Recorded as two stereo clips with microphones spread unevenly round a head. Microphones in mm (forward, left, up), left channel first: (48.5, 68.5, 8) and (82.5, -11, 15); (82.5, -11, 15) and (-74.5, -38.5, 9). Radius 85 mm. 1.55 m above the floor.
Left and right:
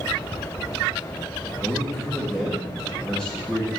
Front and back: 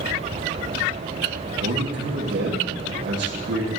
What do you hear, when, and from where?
1.6 s a man speaking: 150° right, 1.8 m